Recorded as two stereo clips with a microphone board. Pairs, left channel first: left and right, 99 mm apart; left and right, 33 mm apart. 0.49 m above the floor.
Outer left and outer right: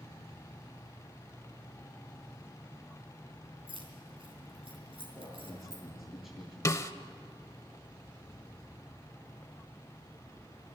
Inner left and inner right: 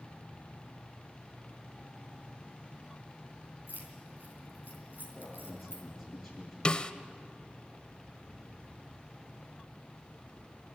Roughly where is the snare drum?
Left.